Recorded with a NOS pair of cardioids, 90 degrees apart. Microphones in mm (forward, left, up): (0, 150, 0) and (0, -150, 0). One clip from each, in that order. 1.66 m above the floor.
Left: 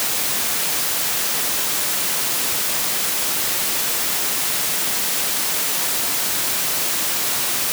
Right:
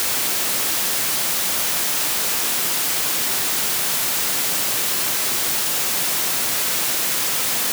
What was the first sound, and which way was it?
Only background noise.